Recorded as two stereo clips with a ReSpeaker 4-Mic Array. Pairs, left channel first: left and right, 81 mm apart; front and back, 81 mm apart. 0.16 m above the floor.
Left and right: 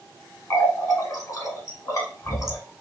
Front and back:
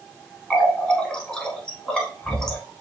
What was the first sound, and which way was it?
A running tap, 75° left.